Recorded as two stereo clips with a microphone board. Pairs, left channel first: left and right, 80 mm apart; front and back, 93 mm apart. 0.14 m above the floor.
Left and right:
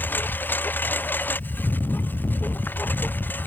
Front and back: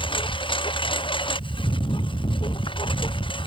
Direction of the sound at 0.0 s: 25° left.